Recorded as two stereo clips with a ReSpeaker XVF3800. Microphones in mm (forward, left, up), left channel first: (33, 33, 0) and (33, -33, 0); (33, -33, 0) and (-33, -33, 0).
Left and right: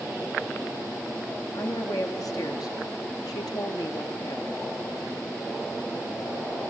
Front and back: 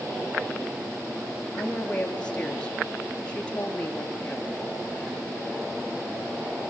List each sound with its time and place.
1.5 s a woman speaking: 70° left, 6 m